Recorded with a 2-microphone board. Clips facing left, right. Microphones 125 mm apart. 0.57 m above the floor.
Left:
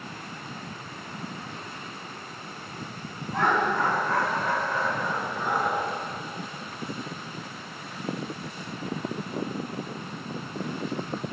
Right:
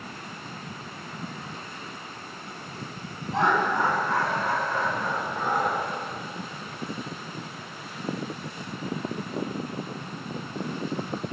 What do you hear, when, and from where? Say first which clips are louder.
3.3 s laughter: right 1 dB; 25° right (ahead or behind), 3.5 m; by 5.8 s 30° right (ahead or behind), 6 m